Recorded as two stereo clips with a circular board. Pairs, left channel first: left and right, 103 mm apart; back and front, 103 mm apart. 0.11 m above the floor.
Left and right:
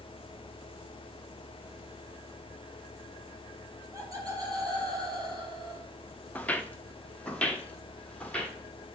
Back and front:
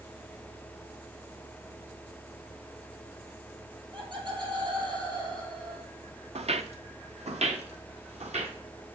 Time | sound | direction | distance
3.9 | laughter | 35° right | 3 m
6.3 | footsteps | 15° left | 0.8 m